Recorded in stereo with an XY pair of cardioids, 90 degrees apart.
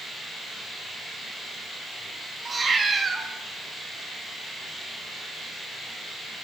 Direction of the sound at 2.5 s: 40° right.